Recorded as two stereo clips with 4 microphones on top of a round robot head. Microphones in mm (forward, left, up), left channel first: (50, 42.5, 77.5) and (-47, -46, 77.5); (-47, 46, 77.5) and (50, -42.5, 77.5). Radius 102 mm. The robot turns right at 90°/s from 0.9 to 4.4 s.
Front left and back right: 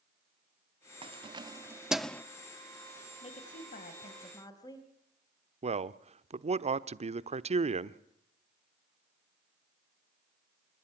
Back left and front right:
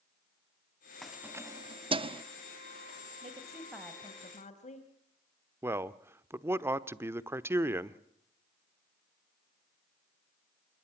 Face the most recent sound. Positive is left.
turn(degrees=-115)